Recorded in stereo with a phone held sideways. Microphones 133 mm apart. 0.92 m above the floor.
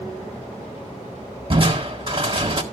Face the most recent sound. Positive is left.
turn(degrees=-40)  # may be behind; listen again after turning